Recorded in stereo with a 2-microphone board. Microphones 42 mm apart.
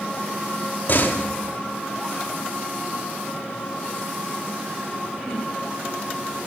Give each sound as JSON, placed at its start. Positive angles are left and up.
{"t": 0.9, "sound": "a door slam", "side_deg": 55, "distance_m": 2.5}